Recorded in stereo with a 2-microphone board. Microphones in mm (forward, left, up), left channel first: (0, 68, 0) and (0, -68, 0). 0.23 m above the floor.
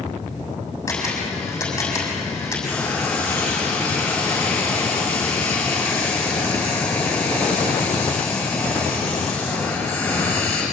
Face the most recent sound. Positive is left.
turn(degrees=15)  # may be behind; listen again after turning